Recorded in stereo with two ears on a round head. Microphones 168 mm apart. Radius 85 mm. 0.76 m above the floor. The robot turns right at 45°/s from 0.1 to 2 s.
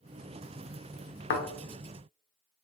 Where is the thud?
70° left (ahead or behind), 0.8 m; by 1.4 s 65° left (ahead or behind), 0.8 m.